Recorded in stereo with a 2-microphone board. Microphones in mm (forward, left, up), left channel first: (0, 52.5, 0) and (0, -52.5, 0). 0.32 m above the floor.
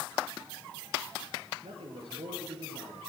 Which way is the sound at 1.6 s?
75° right (ahead or behind).